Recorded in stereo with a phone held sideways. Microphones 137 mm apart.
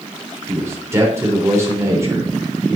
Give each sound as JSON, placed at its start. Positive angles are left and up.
{"t": 0.5, "sound": "a man speaking", "side_deg": -20, "distance_m": 4.0}